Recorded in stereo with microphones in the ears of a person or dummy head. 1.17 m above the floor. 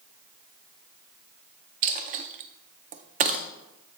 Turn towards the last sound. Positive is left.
turn(degrees=-35)  # may be behind; listen again after turning